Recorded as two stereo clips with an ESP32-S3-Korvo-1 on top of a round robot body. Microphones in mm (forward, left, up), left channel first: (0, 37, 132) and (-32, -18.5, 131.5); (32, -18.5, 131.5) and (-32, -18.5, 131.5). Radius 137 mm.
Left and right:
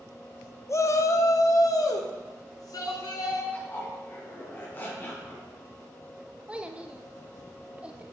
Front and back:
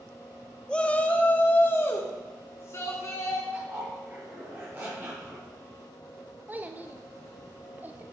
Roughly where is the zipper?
Behind left.